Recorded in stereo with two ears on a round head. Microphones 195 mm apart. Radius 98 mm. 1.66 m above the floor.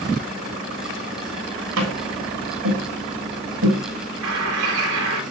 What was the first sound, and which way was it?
Tapping, 70° right (ahead or behind).